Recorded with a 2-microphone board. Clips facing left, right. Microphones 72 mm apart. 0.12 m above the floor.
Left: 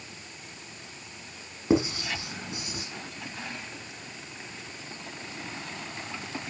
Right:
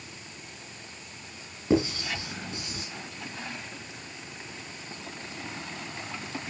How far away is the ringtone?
I don't hear a ringtone.